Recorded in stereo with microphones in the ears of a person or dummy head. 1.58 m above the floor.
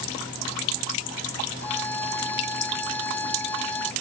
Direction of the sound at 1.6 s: 10° left (ahead or behind).